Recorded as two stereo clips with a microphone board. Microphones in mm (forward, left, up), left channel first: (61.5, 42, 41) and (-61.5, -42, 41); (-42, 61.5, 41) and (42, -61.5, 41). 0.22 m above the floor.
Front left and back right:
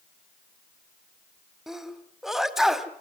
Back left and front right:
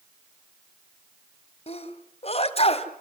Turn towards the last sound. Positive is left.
turn(degrees=130)